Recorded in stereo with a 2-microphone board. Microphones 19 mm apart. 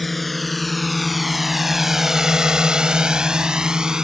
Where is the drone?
10° left (ahead or behind); by 4.0 s 40° right (ahead or behind).